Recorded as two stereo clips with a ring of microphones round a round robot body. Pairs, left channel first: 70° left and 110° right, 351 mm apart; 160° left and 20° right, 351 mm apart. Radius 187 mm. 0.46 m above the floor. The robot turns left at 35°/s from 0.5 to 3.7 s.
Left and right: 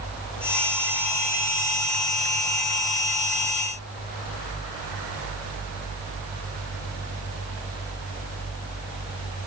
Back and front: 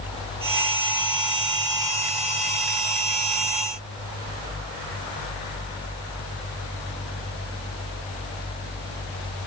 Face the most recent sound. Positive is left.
No sound to turn to.